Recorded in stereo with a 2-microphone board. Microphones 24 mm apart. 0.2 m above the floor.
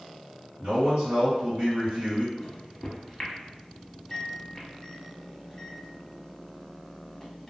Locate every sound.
0.6 s a man speaking: 45° right (ahead or behind), 2.0 m
2.4 s a microwave: 15° left (ahead or behind), 0.8 m